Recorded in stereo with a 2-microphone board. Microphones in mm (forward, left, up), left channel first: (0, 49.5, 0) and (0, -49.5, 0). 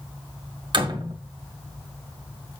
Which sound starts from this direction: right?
A door slam, at 0.7 s.